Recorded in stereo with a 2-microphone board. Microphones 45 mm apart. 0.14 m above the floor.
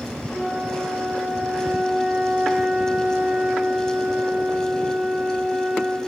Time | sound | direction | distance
0.3 | a flute | 20° right (ahead or behind) | 2.5 m